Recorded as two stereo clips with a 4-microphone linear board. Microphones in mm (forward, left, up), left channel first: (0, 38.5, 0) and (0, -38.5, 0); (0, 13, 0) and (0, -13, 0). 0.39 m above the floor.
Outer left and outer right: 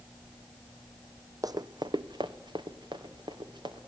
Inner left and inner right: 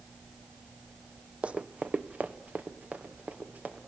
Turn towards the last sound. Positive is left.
turn(degrees=-80)